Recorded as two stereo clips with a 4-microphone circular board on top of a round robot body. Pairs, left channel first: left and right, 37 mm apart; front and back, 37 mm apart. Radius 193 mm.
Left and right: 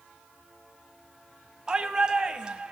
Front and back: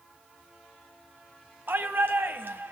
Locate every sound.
1.7 s a shout: 155° right, 3 m